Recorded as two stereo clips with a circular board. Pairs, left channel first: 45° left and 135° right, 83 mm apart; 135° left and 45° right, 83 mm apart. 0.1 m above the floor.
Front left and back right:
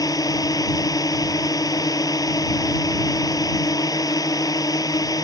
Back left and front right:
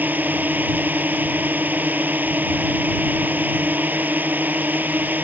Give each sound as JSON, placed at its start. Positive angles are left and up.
{"t": 0.0, "sound": "a drone", "azimuth_deg": 20}